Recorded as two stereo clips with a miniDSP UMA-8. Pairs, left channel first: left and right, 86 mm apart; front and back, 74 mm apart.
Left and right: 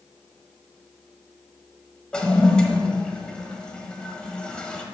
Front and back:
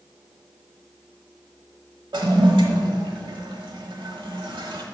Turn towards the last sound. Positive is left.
turn(degrees=170)